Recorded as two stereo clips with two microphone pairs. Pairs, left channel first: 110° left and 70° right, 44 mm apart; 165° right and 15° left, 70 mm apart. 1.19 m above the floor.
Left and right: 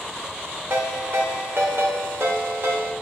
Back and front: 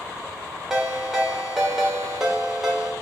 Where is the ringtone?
70° right, 1.7 m.